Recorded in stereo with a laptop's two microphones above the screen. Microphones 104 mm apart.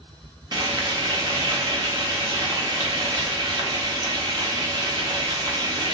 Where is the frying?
40° right (ahead or behind), 0.5 m.